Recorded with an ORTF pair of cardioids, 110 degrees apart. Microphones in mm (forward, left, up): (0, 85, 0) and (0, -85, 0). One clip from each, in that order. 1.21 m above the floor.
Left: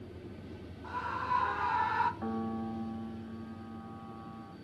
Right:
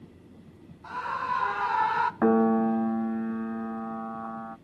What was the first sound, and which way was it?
A scream, 25° right.